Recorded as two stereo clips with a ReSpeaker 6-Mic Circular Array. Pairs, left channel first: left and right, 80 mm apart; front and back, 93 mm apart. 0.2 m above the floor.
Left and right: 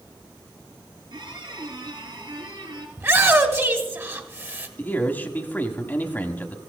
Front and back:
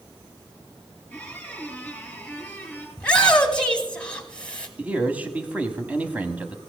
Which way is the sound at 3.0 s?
70° right.